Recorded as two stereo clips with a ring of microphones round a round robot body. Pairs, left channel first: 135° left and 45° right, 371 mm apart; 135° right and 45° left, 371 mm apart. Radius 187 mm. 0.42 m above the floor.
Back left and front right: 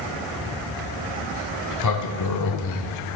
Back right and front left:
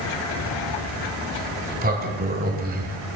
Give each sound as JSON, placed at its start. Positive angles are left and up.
{"t": 1.4, "sound": "a sliding door", "azimuth_deg": 105, "distance_m": 1.6}